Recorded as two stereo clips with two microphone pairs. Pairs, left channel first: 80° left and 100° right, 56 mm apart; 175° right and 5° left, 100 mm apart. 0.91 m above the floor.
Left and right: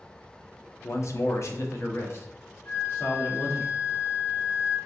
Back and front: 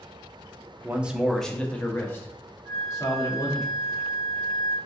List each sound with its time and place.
0.8 s a man speaking: 70° left, 0.6 m; by 3.6 s 130° left, 1.8 m
2.6 s a flute: 115° left, 1.8 m